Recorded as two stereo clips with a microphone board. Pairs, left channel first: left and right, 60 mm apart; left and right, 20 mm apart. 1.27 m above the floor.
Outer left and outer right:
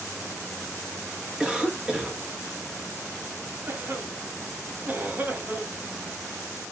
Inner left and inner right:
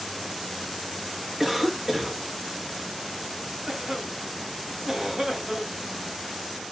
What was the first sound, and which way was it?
A cough, 15° right (ahead or behind).